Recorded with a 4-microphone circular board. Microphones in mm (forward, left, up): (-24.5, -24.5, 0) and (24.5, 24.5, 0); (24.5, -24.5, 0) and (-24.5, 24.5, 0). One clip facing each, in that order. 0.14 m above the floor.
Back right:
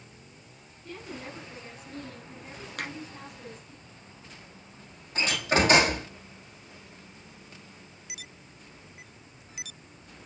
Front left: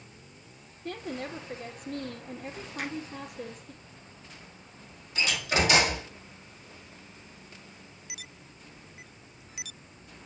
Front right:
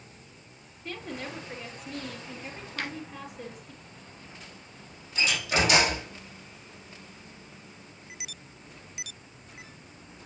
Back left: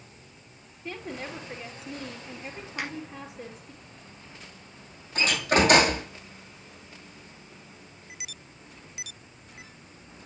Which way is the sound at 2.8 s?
155° right.